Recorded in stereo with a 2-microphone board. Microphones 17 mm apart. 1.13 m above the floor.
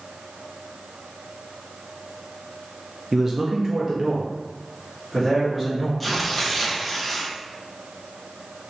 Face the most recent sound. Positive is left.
turn(degrees=5)  # may be behind; listen again after turning